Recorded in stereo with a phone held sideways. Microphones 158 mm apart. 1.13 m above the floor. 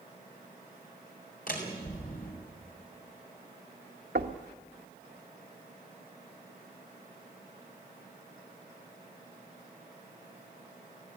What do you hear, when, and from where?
1.5 s a door slam: 60° left (ahead or behind), 5.5 m
4.2 s knocking: 80° right, 1.4 m